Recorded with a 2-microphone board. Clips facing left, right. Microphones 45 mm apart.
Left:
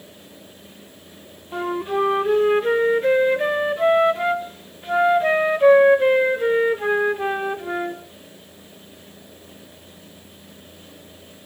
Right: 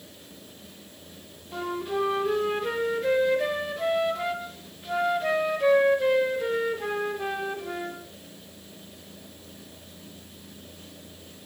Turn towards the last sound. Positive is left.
turn(degrees=25)  # may be behind; listen again after turning